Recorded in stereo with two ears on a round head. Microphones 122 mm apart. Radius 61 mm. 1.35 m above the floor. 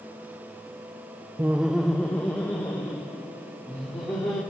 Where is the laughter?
15° right (ahead or behind), 0.6 m; by 4.4 s 20° left (ahead or behind), 4 m.